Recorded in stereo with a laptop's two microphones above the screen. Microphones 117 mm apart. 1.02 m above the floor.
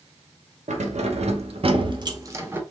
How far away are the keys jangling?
About 1.0 m.